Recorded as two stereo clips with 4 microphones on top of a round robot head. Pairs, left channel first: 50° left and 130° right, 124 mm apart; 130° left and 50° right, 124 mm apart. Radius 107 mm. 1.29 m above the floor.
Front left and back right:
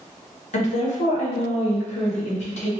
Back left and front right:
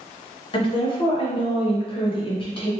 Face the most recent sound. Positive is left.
turn(degrees=80)